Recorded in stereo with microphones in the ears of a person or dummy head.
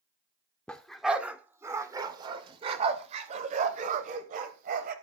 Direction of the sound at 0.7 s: 5° left (ahead or behind).